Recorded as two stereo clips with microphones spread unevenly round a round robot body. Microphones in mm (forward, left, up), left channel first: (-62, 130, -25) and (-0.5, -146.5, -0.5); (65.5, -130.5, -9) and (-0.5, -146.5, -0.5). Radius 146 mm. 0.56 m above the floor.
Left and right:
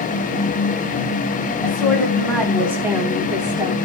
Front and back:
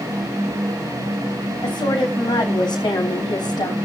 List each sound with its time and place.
1.6 s a woman speaking: 20° left, 3.5 m; by 3.8 s straight ahead, 3 m